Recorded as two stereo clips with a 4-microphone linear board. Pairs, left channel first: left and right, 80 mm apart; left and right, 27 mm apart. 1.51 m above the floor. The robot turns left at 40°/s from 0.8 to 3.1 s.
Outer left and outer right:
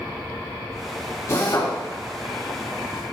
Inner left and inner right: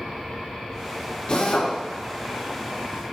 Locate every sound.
1.3 s a drill: 35° left (ahead or behind), 3.5 m; by 1.7 s 55° left (ahead or behind), 3.5 m